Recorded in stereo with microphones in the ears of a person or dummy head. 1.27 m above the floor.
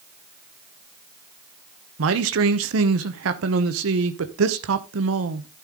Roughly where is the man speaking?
Right.